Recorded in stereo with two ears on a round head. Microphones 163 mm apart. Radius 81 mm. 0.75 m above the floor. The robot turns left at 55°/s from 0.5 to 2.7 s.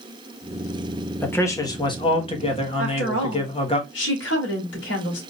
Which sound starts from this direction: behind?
A man speaking, at 1.2 s.